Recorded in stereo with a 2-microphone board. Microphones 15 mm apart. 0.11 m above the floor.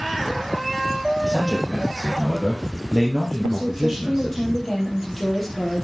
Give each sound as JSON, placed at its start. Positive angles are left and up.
{"t": 1.2, "sound": "a man speaking", "side_deg": -60, "distance_m": 2.5}
{"t": 3.4, "sound": "a woman speaking", "side_deg": 15, "distance_m": 3.5}